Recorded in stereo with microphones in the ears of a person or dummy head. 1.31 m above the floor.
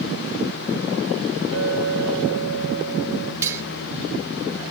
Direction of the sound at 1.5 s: 55° left (ahead or behind).